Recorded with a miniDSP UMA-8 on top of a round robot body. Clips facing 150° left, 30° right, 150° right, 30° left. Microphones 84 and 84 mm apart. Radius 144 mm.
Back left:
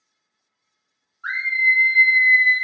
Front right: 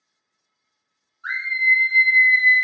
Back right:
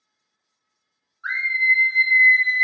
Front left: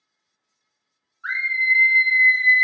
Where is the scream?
135° left, 1.1 m; by 2.6 s 145° right, 1.0 m.